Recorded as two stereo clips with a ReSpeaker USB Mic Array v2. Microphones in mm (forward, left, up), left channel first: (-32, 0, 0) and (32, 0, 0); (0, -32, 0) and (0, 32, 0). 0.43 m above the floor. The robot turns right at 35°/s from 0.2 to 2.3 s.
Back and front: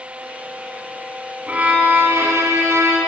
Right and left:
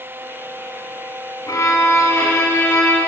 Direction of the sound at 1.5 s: 70° right.